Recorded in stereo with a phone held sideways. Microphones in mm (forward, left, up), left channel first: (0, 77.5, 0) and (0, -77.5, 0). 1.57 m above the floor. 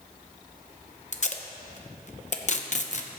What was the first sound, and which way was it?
Tape being pulled, 50° left (ahead or behind).